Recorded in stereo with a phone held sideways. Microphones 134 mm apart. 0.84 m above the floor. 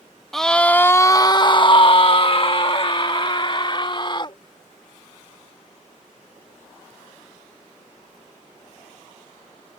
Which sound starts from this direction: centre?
A scream, at 0.3 s.